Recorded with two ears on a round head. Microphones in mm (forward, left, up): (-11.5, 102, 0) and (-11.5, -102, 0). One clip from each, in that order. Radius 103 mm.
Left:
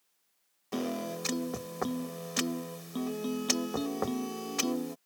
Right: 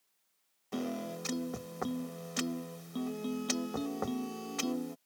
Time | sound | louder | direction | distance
0.7 | a piano | left 4 dB | 15° left (ahead or behind) | ?